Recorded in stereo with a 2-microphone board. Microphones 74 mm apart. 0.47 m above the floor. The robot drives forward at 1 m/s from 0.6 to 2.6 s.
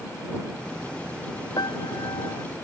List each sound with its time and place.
1.6 s a piano: 70° left (ahead or behind); by 2.5 s 85° left